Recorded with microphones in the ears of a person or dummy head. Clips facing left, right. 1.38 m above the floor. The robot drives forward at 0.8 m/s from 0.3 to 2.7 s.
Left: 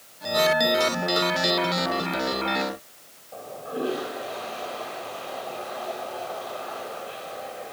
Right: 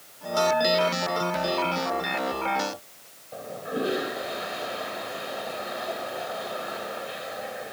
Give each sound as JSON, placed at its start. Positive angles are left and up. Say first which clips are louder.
{"t": 3.3, "sound": "a toilet flushing", "louder": "right 1 dB", "side_deg": -20, "distance_m": 4.5}